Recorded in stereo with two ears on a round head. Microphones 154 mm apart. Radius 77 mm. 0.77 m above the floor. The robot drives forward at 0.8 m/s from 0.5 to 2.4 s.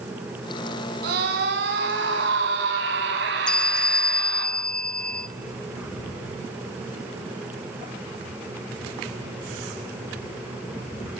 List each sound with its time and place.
1.0 s a scream: 60° right (ahead or behind), 7 m; by 4.5 s 70° right (ahead or behind), 6.5 m
3.5 s a bell: 5° left (ahead or behind), 1.1 m